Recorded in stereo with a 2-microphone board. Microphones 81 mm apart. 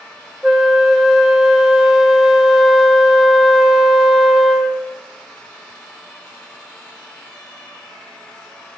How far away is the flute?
About 0.8 m.